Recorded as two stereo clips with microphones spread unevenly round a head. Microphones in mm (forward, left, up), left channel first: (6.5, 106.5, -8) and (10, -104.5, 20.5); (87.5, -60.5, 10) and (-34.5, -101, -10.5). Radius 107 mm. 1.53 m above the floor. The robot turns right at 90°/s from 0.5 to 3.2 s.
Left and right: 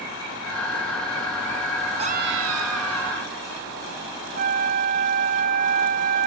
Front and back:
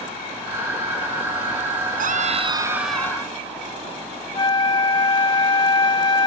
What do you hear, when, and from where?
2.0 s a scream: 155° right; by 3.4 s 45° right
4.3 s a flute: 40° right